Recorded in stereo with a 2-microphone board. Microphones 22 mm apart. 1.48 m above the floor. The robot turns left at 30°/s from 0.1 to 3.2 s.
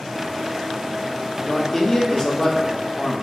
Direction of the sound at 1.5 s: 15° left (ahead or behind).